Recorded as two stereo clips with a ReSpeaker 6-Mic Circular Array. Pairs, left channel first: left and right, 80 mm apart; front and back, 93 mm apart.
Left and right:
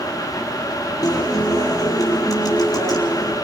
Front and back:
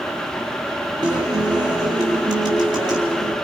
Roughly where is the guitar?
Behind left.